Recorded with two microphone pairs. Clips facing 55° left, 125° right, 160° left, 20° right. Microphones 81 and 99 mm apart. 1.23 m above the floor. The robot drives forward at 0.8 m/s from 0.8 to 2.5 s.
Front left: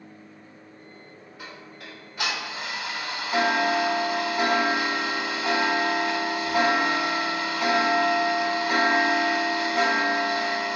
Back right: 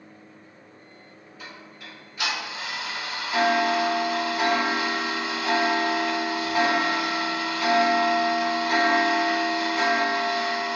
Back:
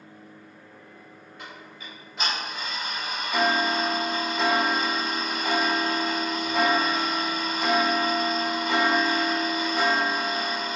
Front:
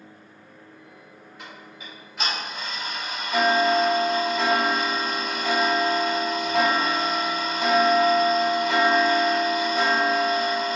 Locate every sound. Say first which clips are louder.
1.4 s ticking: front left 1 dB, even; 55° left, 1.8 m; by 10.8 s 85° left, 1.5 m